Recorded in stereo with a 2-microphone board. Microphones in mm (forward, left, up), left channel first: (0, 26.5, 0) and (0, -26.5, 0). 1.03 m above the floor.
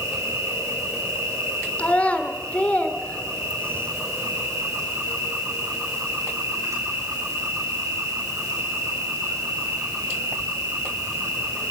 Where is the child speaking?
25° left (ahead or behind), 2.5 m.